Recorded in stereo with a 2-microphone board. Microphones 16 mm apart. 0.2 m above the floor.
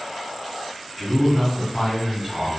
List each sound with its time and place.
1.0 s a man speaking: 20° right (ahead or behind), 1.4 m